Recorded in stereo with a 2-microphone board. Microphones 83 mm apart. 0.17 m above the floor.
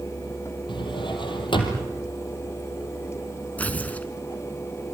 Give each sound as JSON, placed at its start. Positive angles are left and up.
{"t": 0.7, "sound": "a drawer", "side_deg": 75, "distance_m": 3.5}
{"t": 3.6, "sound": "tearing paper", "side_deg": 20, "distance_m": 1.3}